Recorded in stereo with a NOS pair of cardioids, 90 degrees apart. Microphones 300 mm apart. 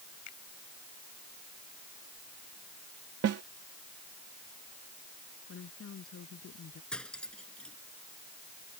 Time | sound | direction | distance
0.3 | a finger snap | 65° left | ?
3.2 | a snare drum | 55° right | ?
5.5 | a woman speaking | 45° left | ?
6.9 | cutlery clinking | 5° left | ?